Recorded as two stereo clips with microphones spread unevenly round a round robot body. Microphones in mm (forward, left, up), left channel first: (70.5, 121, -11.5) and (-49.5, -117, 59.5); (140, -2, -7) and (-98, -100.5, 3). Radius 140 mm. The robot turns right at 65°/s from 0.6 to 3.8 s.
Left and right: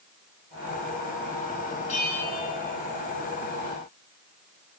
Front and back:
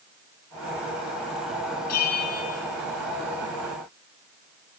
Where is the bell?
5° right, 8.5 m; by 2.6 s 35° left, 8.5 m.